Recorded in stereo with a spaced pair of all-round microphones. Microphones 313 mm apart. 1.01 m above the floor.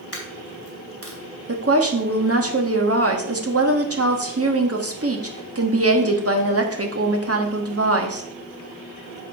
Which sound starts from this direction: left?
A dropped coin, at 0.1 s.